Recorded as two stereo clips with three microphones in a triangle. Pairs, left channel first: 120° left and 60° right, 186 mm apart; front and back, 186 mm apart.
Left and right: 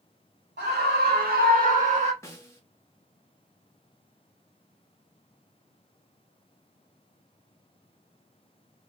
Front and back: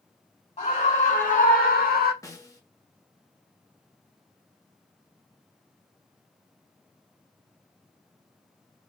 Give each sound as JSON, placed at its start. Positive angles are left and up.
{"t": 0.6, "sound": "a scream", "azimuth_deg": -50, "distance_m": 2.0}
{"t": 2.2, "sound": "a snare drum", "azimuth_deg": 60, "distance_m": 0.9}